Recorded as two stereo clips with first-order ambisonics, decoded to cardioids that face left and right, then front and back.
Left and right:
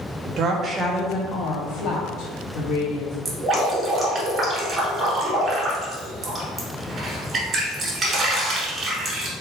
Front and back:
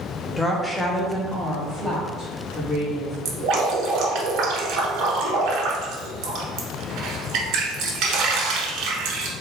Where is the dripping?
155° right, 1.2 m.